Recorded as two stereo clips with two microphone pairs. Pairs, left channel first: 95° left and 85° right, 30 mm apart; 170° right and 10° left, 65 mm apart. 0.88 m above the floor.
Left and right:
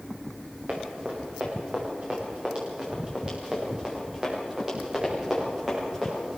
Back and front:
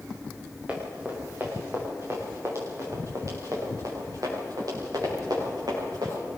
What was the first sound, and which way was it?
Running footsteps, 60° right.